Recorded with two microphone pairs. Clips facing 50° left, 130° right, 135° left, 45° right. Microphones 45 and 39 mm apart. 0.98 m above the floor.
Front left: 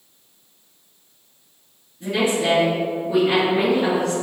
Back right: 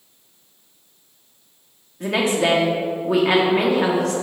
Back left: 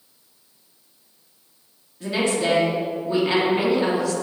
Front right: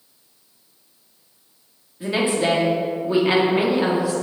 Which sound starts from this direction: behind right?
A woman speaking, at 2.0 s.